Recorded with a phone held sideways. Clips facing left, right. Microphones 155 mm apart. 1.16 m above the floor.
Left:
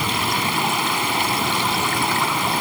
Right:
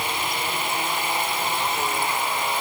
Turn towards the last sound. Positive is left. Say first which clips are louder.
# left 4 dB
turn(degrees=85)